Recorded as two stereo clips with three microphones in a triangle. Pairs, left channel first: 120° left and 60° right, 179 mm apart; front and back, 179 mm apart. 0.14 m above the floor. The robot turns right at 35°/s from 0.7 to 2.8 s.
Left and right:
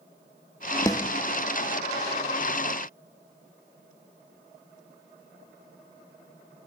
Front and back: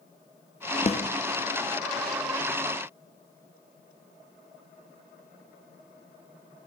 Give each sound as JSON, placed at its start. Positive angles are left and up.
{"t": 0.9, "sound": "a snare drum", "azimuth_deg": 50, "distance_m": 1.1}